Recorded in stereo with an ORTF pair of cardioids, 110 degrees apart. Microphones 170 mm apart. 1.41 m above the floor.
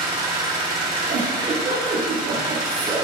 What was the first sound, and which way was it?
An engine running, 30° right.